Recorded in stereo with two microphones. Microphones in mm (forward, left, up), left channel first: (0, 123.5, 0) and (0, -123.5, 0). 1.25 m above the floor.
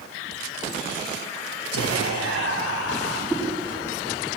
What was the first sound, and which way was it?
Whispering, 90° left.